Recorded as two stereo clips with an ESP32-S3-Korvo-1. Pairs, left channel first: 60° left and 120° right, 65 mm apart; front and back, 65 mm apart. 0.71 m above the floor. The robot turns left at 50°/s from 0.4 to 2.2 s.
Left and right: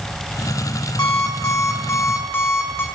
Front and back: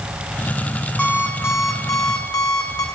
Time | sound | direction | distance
1.0 | an alarm clock | 70° left | 1.6 m